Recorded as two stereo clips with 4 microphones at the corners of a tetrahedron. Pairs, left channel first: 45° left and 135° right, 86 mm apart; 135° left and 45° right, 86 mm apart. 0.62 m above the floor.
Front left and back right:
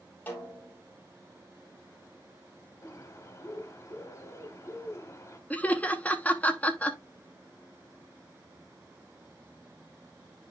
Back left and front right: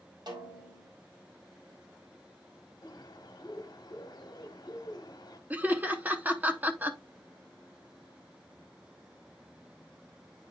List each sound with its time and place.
0.3 s a snare drum: 20° right, 3 m
2.8 s a bird: 100° left, 1.3 m
5.5 s laughter: 5° right, 1.0 m